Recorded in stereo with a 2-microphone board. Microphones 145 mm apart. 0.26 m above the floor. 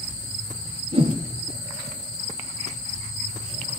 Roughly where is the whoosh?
Right.